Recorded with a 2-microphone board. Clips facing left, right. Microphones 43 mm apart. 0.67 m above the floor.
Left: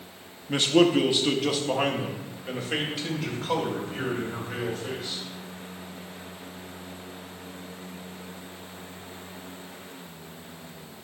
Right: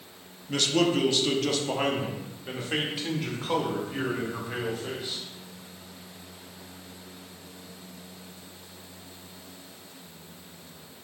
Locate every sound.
0.5 s a man speaking: 25° left (ahead or behind), 0.7 m; by 5.2 s 5° right (ahead or behind), 2.5 m